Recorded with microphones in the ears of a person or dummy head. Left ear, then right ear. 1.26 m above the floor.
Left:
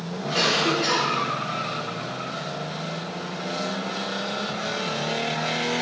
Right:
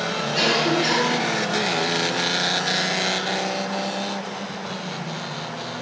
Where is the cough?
30° left (ahead or behind), 4.5 m.